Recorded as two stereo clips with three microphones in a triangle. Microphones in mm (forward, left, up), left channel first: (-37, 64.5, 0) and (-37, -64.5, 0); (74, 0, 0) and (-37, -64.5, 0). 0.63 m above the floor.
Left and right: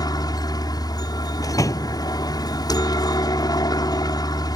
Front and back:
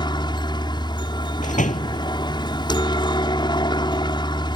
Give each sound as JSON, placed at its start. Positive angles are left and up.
{"t": 0.0, "sound": "a helicopter", "azimuth_deg": 55}
{"t": 1.4, "sound": "a door slam", "azimuth_deg": 25}